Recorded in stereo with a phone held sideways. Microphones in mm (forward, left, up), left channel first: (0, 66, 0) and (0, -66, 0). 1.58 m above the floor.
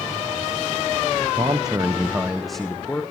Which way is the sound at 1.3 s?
40° right (ahead or behind).